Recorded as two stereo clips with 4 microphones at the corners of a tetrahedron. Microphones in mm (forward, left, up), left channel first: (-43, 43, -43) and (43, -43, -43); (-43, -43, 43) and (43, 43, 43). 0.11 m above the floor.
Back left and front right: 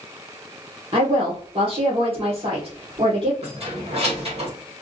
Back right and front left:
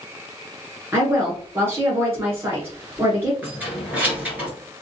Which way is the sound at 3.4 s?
30° right.